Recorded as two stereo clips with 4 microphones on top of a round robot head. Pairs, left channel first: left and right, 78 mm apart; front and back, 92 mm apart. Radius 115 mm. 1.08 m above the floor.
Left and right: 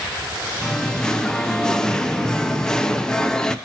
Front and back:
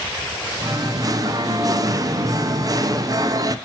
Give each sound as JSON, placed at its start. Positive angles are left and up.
{"t": 0.6, "sound": "singing", "azimuth_deg": 170, "distance_m": 0.6}